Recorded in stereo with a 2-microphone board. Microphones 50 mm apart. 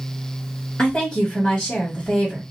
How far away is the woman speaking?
About 1.8 m.